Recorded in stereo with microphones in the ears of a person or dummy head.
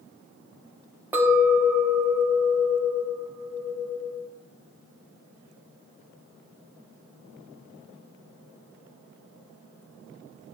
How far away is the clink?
About 0.8 m.